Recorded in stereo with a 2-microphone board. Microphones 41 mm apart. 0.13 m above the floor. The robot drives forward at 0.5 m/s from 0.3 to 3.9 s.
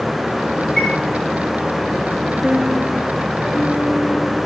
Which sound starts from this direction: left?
A chime, at 0.8 s.